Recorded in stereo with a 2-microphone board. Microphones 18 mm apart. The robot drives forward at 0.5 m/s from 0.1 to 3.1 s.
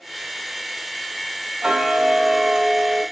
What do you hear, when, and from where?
1.6 s ticking: 60° right (ahead or behind), 1.6 m; by 3.0 s 40° right (ahead or behind), 2 m